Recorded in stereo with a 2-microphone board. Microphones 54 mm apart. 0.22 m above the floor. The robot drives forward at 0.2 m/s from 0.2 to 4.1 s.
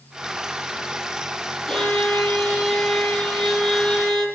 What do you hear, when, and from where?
1.7 s a violin: 10° left (ahead or behind), 8.5 m